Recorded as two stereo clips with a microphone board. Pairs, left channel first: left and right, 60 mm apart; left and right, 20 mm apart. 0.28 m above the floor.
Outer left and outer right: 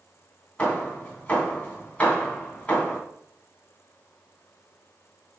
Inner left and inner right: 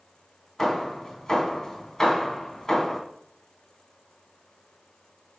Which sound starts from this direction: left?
Hammering, at 0.6 s.